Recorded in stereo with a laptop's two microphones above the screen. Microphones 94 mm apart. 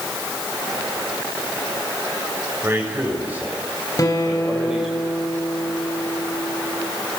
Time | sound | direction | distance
2.6 | a man speaking | 25° right (ahead or behind) | 6.5 m
4.0 | a guitar | 40° left (ahead or behind) | 3 m